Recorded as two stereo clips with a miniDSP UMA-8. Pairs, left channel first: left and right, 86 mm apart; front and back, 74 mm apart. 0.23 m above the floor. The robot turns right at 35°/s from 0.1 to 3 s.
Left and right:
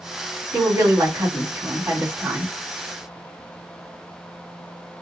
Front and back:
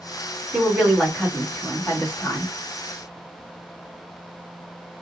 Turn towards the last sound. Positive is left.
turn(degrees=-10)